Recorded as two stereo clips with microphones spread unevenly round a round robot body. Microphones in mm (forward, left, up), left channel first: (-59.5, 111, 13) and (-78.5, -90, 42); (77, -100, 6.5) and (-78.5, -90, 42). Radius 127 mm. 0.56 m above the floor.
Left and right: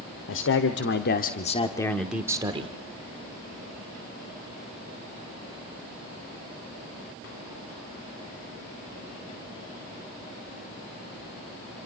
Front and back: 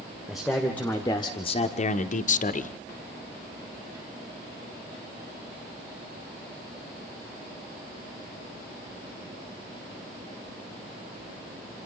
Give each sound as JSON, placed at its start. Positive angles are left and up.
{"t": 0.3, "sound": "a man speaking", "azimuth_deg": 85, "distance_m": 1.8}